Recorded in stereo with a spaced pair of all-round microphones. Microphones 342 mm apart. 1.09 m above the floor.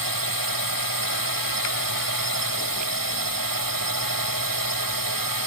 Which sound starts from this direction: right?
A drone, at 0.0 s.